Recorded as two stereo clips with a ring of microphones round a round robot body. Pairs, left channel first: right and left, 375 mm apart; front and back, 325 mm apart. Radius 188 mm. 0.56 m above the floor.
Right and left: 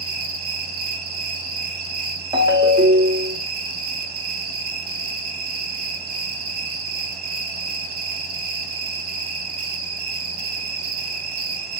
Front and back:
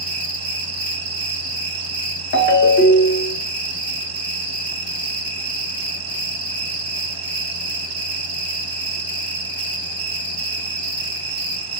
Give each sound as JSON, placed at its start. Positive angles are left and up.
{"t": 0.0, "sound": "an insect", "azimuth_deg": 125, "distance_m": 1.8}
{"t": 2.3, "sound": "a ringtone", "azimuth_deg": 20, "distance_m": 0.7}